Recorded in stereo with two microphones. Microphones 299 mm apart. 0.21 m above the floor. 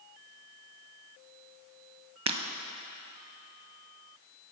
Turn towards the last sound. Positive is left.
turn(degrees=-60)  # may be behind; listen again after turning